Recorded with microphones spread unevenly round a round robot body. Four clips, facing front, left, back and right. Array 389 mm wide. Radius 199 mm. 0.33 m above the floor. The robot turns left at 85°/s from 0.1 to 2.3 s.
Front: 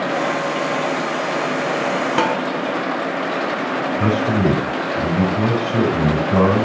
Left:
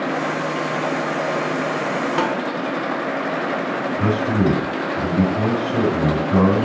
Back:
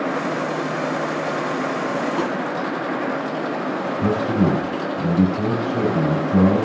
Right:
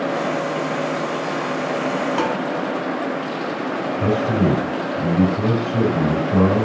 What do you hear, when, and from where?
2.2 s dishes clattering: 20° left, 1.6 m; by 2.4 s 10° left, 1.6 m
4.0 s a man speaking: 30° left, 4 m